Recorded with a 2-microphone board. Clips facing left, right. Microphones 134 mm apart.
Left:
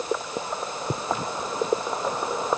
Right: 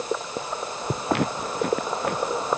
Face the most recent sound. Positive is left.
turn(degrees=-70)  # may be behind; listen again after turning